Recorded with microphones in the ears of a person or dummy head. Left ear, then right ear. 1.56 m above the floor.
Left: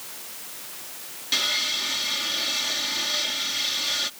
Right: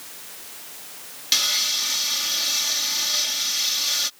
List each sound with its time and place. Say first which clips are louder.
1.3 s sawing: right 3 dB; 45° right (ahead or behind)